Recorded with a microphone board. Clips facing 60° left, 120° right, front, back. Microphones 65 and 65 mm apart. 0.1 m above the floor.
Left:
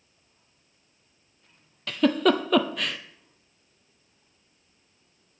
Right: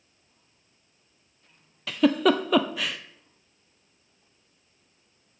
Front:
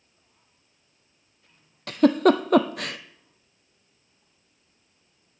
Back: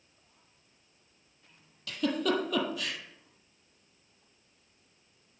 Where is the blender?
No blender in this recording.